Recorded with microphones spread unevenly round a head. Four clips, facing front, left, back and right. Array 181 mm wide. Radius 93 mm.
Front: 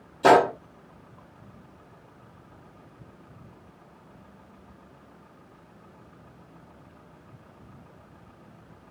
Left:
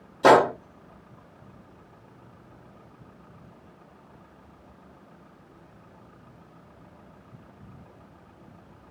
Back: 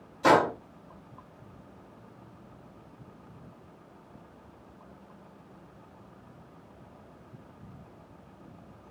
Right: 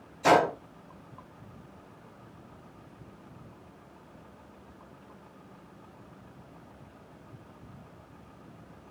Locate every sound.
0.2 s a gunshot: 60° left, 1.2 m